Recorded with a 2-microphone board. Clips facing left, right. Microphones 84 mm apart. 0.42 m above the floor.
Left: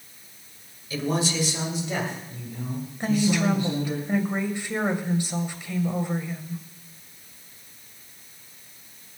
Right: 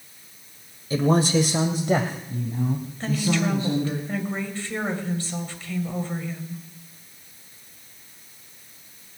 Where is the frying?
I don't hear frying.